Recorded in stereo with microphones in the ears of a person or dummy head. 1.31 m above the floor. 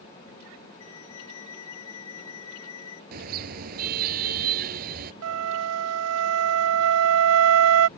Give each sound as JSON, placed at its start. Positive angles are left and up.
{"t": 0.8, "sound": "a flute", "side_deg": 75}
{"t": 3.1, "sound": "a car horn", "side_deg": -50}
{"t": 5.2, "sound": "a flute", "side_deg": -85}